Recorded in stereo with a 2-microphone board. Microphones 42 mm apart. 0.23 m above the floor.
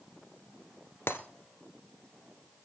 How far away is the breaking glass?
About 1.9 m.